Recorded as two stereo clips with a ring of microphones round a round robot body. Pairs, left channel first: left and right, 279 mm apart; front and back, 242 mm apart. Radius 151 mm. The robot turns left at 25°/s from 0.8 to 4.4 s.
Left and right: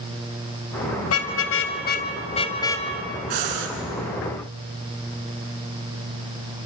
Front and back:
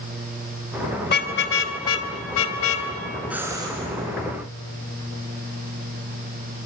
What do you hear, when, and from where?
1.1 s a car horn: 50° left, 2.5 m; by 2.9 s 5° left, 2.5 m
3.3 s breathing: 95° right, 3.5 m; by 3.7 s 105° right, 3.5 m